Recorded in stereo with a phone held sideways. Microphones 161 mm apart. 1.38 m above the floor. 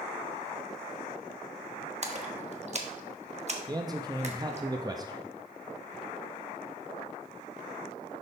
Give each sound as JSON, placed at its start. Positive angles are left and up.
{"t": 2.0, "sound": "a splash", "side_deg": -45, "distance_m": 1.0}
{"t": 3.7, "sound": "a man speaking", "side_deg": -25, "distance_m": 0.5}